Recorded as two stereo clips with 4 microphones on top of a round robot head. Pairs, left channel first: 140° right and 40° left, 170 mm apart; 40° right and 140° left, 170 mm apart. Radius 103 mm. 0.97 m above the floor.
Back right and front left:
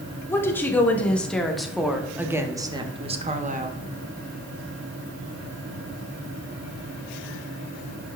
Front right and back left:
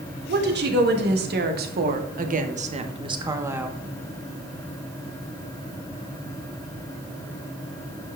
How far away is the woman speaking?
About 2.5 m.